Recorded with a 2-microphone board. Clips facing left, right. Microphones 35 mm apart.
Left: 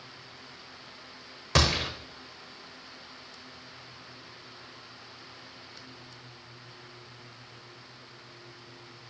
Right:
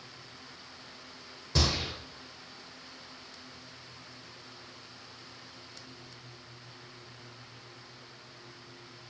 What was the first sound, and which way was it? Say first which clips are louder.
A gunshot: left 5 dB; 75° left (ahead or behind).